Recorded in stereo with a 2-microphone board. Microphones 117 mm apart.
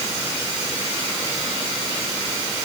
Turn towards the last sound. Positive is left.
No sound to turn to.